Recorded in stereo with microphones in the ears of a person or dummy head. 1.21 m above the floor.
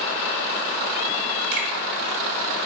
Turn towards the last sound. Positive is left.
turn(degrees=-35)  # may be behind; listen again after turning